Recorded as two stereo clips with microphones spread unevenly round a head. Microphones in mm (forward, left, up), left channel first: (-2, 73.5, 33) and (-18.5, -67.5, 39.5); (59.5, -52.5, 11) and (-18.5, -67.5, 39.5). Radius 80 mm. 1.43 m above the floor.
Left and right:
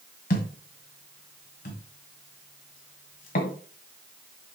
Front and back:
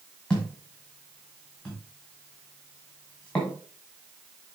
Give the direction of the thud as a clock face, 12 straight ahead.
8 o'clock.